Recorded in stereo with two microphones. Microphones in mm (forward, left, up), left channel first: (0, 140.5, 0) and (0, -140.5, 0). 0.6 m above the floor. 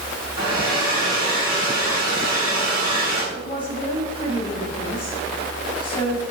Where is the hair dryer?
75° left (ahead or behind), 4 m.